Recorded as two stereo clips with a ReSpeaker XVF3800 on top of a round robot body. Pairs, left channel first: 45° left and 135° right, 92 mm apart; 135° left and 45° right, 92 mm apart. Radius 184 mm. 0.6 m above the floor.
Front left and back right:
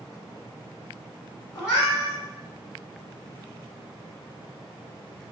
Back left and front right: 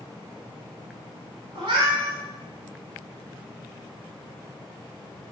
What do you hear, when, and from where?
1.6 s a cat meowing: 10° right, 1.1 m